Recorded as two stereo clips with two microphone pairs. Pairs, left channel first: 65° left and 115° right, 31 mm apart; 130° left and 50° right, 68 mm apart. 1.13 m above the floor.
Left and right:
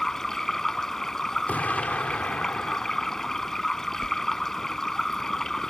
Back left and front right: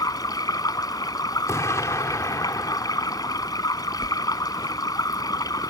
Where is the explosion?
85° left.